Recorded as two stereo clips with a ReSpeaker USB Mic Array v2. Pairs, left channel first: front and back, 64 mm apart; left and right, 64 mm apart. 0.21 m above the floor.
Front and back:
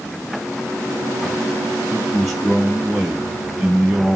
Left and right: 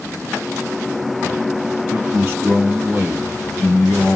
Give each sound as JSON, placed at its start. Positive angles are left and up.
{"t": 1.9, "sound": "a man speaking", "azimuth_deg": -80, "distance_m": 1.8}